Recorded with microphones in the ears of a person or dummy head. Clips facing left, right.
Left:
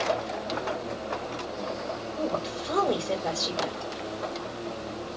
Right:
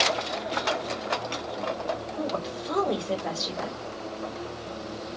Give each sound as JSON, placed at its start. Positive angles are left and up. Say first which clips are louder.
{"t": 2.2, "sound": "a woman speaking", "louder": "left 1 dB", "side_deg": -5, "distance_m": 3.0}